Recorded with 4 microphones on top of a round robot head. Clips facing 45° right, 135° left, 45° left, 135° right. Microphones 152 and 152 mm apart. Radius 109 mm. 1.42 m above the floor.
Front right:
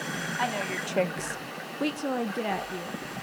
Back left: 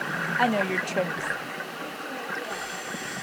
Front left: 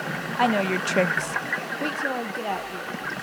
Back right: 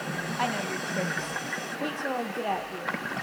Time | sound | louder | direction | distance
0.4 | a woman speaking | back left 8 dB, front left 10 dB | 90° left | 0.9 m